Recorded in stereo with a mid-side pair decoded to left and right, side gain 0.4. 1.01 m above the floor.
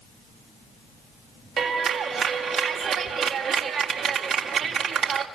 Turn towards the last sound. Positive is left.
turn(degrees=-70)